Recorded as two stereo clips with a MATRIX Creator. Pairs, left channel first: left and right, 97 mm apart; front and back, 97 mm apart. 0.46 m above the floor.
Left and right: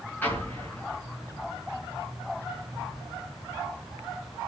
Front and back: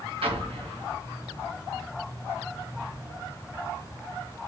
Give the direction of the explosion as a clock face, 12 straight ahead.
7 o'clock.